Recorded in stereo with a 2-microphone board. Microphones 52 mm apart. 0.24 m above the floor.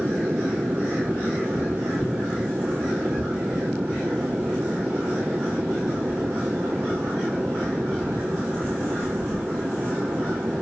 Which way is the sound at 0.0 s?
40° right (ahead or behind).